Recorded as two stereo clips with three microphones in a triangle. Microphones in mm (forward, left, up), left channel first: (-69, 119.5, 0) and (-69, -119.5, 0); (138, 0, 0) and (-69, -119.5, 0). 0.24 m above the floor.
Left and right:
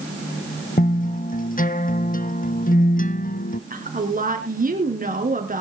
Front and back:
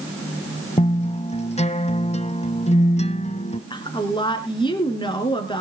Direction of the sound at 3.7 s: 40° right.